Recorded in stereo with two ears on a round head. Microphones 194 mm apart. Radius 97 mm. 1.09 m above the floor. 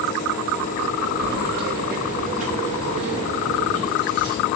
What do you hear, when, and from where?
1.2 s keys jangling: 50° right (ahead or behind), 1.2 m; by 4.4 s 20° right (ahead or behind), 2.5 m